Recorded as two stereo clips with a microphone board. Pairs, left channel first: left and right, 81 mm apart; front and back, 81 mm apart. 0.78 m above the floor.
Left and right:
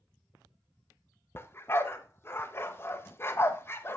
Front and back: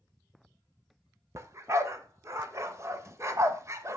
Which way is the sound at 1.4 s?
140° left.